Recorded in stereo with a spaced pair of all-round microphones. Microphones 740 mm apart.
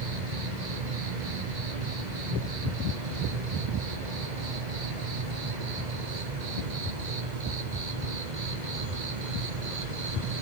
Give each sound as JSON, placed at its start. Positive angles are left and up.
{"t": 0.0, "sound": "an insect", "side_deg": -70, "distance_m": 1.0}